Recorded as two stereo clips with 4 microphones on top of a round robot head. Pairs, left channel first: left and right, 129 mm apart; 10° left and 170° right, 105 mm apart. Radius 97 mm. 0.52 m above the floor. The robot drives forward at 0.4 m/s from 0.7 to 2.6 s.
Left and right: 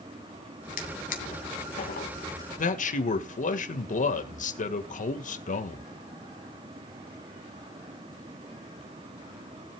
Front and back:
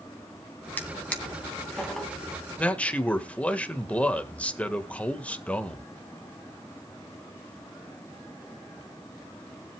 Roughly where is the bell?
No bell in this recording.